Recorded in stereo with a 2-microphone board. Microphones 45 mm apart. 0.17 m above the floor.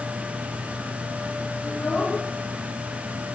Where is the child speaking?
20° left (ahead or behind), 5.5 m; by 3.4 s 35° left (ahead or behind), 5.5 m.